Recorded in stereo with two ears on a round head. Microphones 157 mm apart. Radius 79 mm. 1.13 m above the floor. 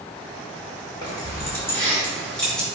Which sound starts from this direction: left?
Keys jangling, at 1.0 s.